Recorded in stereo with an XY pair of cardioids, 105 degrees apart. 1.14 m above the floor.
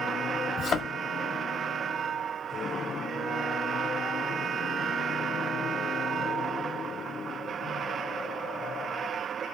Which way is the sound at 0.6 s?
60° left.